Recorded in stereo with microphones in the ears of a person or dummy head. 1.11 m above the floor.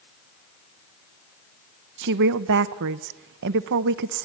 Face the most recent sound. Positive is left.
turn(degrees=-60)  # may be behind; listen again after turning